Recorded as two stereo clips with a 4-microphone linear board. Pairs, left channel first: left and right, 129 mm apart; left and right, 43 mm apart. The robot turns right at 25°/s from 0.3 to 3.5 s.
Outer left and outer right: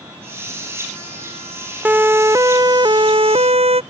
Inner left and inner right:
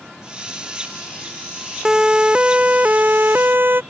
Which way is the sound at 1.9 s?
15° right (ahead or behind).